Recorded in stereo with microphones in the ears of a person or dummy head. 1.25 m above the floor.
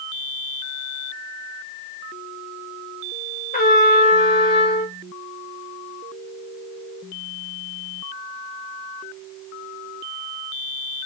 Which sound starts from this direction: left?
A trumpet, at 3.5 s.